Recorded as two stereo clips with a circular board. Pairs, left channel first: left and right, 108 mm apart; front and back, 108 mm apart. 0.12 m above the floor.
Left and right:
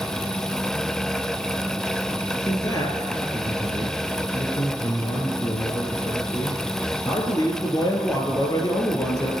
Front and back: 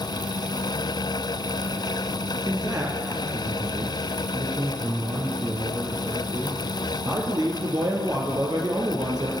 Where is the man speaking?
125° left, 2.5 m.